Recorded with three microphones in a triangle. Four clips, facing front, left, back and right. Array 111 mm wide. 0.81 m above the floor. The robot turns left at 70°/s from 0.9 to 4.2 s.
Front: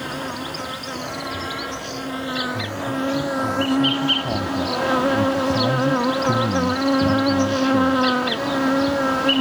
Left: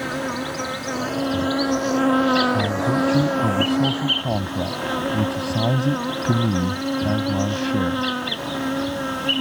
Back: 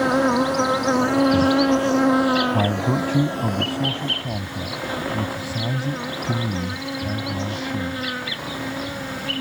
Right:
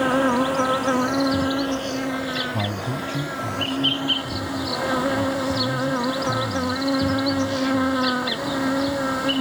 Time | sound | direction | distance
0.0 | an insect | 140° right | ?
2.5 | a man speaking | 175° right | ?